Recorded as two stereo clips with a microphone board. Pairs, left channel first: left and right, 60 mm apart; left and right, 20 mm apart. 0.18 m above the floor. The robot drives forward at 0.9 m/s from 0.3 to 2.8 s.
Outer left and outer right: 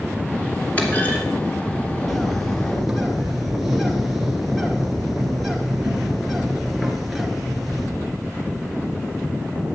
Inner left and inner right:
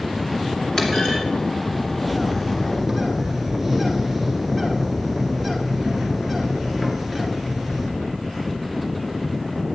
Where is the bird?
5° right (ahead or behind), 1.1 m; by 7.9 s centre (ahead or behind), 1.6 m.